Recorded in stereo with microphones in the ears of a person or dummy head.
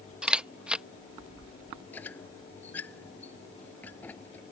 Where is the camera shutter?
5° right (ahead or behind).